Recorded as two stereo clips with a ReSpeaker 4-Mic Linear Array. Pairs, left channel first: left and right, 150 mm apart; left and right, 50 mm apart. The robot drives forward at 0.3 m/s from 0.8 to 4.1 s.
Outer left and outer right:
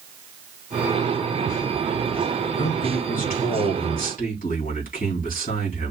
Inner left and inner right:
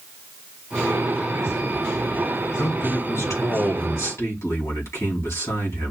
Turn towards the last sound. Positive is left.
turn(degrees=70)  # may be behind; listen again after turning